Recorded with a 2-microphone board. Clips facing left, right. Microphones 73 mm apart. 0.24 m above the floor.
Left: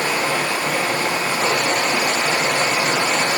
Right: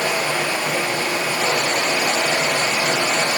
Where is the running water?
40° left (ahead or behind), 0.7 m.